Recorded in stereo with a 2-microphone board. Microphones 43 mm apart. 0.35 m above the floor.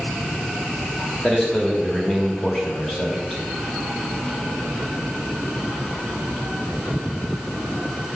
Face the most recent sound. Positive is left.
turn(degrees=15)  # may be behind; listen again after turning